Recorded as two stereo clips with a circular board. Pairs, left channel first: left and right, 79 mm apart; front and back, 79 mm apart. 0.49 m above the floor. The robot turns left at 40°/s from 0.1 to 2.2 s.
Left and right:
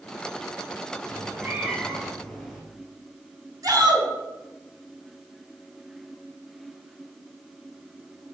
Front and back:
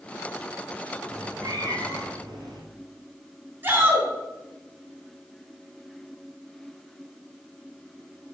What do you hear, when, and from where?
1.1 s a cat meowing: 140° right, 2.5 m; by 2.6 s straight behind, 2.5 m
3.6 s a shout: 130° right, 4 m